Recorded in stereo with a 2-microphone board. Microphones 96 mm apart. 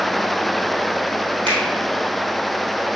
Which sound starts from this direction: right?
A finger snap, at 1.5 s.